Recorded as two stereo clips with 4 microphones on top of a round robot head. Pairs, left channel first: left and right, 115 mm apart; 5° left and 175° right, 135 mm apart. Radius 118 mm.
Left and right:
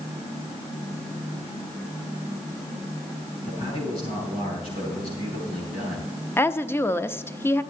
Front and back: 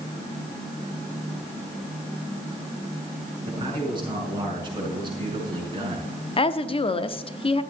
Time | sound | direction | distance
3.5 | a man speaking | 130° left | 6 m
6.4 | a woman speaking | 25° left | 0.8 m